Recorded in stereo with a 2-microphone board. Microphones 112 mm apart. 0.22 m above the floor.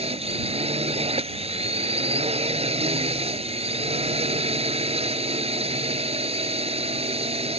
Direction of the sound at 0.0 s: 70° right (ahead or behind).